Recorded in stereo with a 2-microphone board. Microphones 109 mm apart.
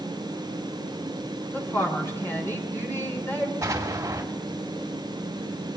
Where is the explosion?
35° right (ahead or behind), 2.5 m.